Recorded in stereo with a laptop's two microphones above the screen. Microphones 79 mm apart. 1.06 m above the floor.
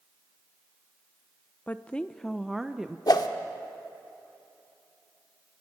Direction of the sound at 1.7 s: 20° left (ahead or behind).